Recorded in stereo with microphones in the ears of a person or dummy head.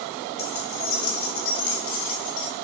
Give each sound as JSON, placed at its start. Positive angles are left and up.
{"t": 0.4, "sound": "keys jangling", "side_deg": 55, "distance_m": 2.5}